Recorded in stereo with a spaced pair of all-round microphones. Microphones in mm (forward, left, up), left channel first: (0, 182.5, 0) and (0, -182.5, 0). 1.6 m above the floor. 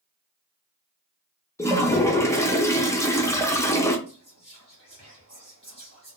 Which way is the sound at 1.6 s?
10° left (ahead or behind).